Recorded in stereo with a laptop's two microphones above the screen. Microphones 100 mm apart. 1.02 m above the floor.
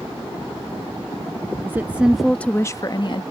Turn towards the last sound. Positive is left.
turn(degrees=55)  # may be behind; listen again after turning